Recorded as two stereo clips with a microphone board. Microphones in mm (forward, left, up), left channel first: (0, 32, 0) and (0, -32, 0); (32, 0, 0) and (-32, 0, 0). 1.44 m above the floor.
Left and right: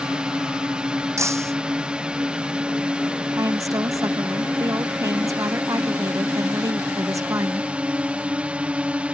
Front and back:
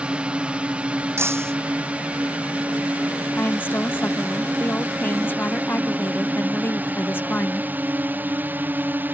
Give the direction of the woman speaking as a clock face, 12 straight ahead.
2 o'clock.